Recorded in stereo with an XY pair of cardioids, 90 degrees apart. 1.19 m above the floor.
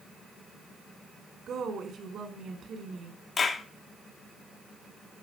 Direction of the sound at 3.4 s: 50° left.